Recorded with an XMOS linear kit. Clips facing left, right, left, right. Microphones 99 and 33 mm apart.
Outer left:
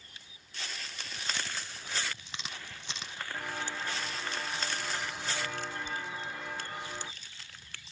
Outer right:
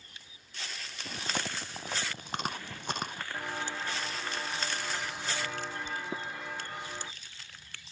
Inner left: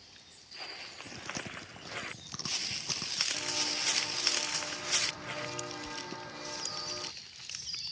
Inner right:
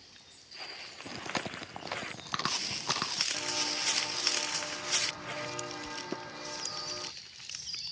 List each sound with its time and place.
1.1 s chewing: 50° right (ahead or behind)
3.3 s footsteps: 10° right (ahead or behind); by 7.1 s centre (ahead or behind)
6.1 s tapping: 70° right (ahead or behind)